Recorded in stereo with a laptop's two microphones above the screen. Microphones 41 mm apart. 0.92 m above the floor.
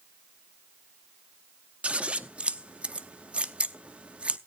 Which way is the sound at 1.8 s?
30° right (ahead or behind).